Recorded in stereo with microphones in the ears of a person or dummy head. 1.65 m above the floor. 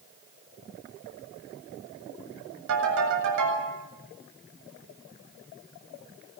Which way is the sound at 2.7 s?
75° right (ahead or behind).